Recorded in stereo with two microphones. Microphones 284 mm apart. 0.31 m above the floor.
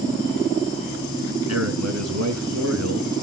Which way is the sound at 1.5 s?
60° right (ahead or behind).